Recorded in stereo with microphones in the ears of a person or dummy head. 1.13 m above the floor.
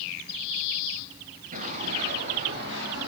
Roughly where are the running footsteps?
Right.